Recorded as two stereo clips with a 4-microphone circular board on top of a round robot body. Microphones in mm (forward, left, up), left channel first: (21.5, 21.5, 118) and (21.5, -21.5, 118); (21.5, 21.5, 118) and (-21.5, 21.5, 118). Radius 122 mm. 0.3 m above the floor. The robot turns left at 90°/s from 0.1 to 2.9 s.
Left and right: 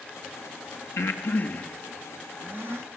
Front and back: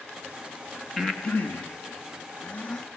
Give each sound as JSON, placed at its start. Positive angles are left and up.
{"t": 1.0, "sound": "breathing", "azimuth_deg": 90, "distance_m": 2.5}